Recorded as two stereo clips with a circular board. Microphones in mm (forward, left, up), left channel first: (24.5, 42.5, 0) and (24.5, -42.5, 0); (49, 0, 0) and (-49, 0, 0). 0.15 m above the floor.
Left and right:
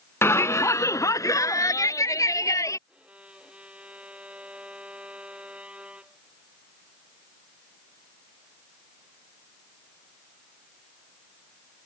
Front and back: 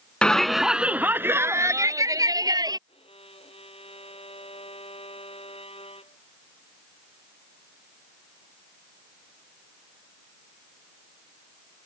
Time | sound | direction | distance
0.2 | a shout | 70° left | ?
2.9 | a violin | 15° right | ?